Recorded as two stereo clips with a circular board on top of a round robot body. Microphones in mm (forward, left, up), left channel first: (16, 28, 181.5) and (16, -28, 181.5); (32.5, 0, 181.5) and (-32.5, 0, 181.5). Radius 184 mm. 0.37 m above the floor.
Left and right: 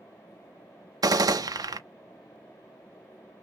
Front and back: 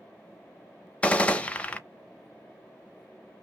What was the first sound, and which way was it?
A gunshot, 75° right.